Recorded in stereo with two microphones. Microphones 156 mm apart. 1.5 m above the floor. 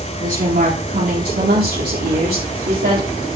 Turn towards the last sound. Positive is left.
turn(degrees=-70)  # may be behind; listen again after turning